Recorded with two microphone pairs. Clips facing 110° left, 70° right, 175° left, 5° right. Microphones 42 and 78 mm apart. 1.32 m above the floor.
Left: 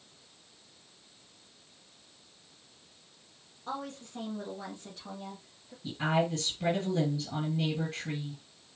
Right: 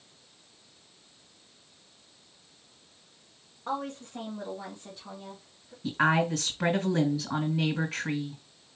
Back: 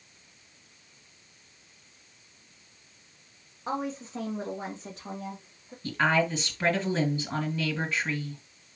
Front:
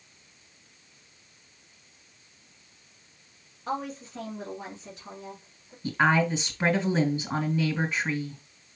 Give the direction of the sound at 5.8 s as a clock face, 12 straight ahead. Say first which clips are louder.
Right 4 dB, front 2 dB; 3 o'clock.